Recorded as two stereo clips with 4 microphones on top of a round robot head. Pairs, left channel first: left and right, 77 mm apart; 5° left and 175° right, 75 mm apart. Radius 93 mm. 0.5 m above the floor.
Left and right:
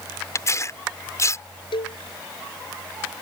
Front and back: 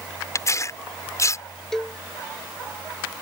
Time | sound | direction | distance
0.3 | tearing paper | 45° left | ?
1.7 | a cowbell | 90° left | ?